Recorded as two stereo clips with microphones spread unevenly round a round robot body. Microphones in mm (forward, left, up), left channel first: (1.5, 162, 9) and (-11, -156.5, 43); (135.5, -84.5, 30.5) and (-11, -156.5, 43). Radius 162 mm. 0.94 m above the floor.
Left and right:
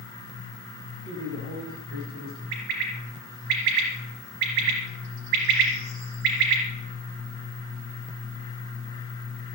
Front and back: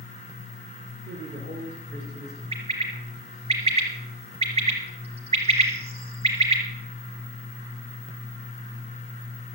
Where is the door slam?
I don't hear a door slam.